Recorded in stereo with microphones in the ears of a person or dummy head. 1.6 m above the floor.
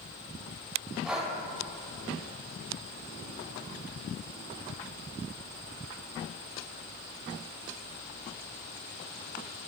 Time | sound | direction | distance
1.0 | breathing | 5° right (ahead or behind) | 2.5 m